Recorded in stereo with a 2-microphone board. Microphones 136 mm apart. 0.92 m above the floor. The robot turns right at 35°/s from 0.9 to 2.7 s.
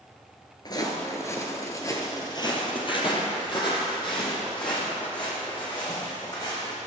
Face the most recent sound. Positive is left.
turn(degrees=35)  # may be behind; listen again after turning